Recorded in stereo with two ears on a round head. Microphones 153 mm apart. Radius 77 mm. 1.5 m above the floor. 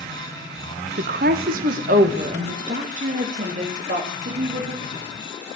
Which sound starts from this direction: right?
A woman speaking, at 1.0 s.